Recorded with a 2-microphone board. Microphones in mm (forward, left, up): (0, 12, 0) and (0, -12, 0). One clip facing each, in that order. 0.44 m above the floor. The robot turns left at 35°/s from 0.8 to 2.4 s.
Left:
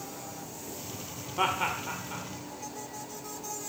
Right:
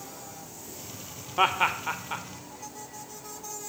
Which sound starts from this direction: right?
Laughter, at 1.4 s.